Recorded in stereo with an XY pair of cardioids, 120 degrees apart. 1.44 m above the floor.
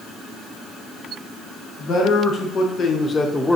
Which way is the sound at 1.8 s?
65° left.